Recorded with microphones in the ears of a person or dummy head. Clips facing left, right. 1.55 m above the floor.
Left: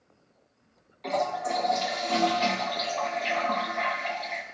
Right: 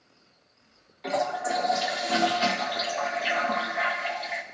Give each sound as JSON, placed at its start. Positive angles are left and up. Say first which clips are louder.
{"t": 1.0, "sound": "a toilet flushing", "louder": "right 1 dB", "side_deg": -5, "distance_m": 0.7}